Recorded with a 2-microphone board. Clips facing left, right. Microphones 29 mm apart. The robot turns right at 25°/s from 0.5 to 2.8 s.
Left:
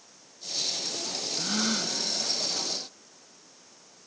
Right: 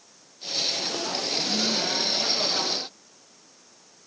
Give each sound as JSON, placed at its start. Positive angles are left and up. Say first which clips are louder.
{"t": 1.4, "sound": "a gasp", "louder": "right 2 dB", "side_deg": 45, "distance_m": 1.7}